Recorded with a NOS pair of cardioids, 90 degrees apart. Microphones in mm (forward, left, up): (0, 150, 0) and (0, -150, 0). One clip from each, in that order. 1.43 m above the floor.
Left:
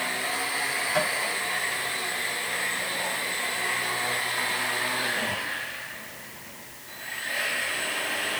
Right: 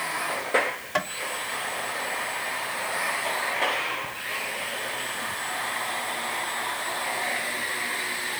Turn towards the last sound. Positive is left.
turn(degrees=-25)